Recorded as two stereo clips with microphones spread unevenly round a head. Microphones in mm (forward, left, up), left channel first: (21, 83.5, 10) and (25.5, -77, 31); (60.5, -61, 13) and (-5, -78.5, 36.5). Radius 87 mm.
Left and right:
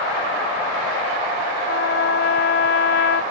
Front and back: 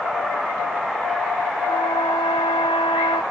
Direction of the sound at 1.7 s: 80° left.